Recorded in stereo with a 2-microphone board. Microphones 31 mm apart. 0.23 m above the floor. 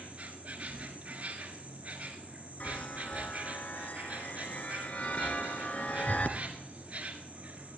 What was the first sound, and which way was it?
An insect, 40° right (ahead or behind).